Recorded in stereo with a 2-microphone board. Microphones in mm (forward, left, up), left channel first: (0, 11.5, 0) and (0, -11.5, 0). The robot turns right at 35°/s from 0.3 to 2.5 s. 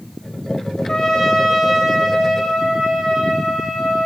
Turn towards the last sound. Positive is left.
turn(degrees=-165)